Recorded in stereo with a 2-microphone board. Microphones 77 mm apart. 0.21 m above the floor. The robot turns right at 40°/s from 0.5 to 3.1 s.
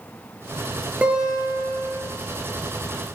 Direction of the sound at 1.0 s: 15° right.